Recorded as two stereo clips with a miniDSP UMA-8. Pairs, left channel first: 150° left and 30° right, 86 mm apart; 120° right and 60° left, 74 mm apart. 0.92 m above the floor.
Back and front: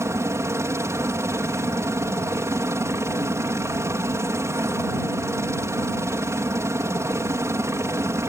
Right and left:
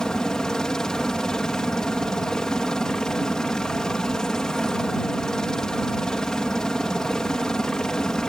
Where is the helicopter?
45° right.